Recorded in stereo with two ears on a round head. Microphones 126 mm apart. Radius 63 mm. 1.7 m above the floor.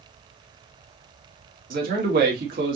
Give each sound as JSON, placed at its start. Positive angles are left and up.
{"t": 1.7, "sound": "a man speaking", "side_deg": -70, "distance_m": 2.0}